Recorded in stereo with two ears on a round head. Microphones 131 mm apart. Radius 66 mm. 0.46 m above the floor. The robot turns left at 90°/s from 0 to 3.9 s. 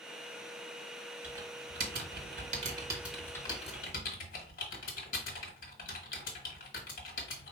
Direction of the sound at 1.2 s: 5° right (ahead or behind).